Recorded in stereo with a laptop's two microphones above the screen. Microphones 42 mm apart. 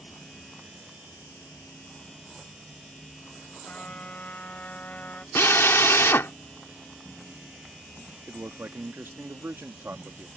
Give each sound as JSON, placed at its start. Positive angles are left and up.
{"t": 3.6, "sound": "a trumpet", "side_deg": 40}
{"t": 5.3, "sound": "a drill", "side_deg": 80}
{"t": 8.3, "sound": "a man speaking", "side_deg": -70}